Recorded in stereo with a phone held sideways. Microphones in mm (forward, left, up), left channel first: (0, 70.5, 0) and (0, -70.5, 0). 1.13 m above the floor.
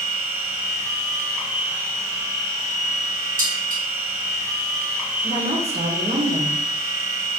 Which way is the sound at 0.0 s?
20° right (ahead or behind).